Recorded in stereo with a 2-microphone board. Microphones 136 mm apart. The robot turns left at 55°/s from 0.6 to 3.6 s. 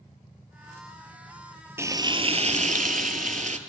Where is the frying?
20° right, 0.5 m; by 3.6 s 120° right, 0.5 m.